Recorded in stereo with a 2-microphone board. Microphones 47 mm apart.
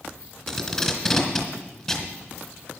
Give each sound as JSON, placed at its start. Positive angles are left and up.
{"t": 0.5, "sound": "tape being pulled", "side_deg": 5, "distance_m": 2.5}